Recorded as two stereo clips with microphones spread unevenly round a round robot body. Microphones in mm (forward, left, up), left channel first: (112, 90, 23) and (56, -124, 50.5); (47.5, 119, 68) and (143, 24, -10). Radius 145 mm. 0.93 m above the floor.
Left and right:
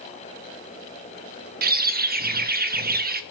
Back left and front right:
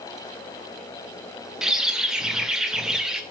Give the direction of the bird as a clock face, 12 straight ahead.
2 o'clock.